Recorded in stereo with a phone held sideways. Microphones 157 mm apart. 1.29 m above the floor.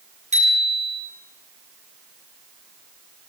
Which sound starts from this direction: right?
A bicycle bell, at 0.3 s.